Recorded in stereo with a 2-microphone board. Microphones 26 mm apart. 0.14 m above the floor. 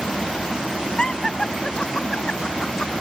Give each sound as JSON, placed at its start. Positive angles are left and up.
{"t": 1.0, "sound": "laughter", "side_deg": 35}